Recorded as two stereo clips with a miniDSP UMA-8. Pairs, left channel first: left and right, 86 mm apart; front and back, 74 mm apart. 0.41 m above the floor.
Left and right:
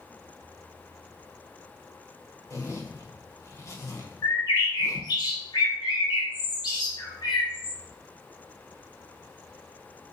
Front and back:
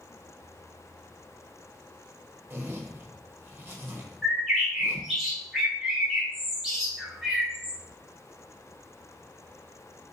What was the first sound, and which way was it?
A zipper, 130° left.